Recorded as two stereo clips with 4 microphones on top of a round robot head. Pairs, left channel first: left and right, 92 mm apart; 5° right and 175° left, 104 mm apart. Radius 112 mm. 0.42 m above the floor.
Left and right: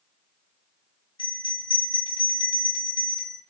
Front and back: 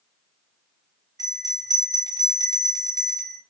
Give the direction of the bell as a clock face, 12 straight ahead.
8 o'clock.